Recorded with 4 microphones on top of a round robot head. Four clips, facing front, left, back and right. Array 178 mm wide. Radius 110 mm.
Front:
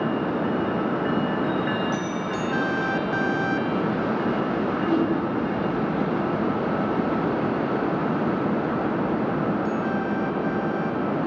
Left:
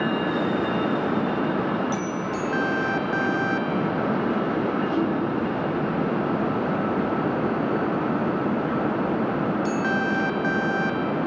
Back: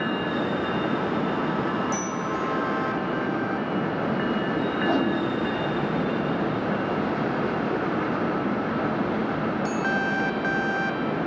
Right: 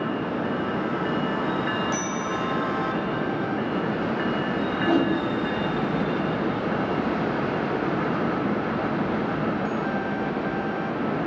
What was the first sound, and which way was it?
A bicycle bell, 160° left.